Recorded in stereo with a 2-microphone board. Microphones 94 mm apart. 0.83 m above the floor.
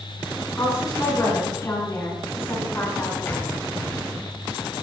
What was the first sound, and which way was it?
A woman speaking, 35° left (ahead or behind).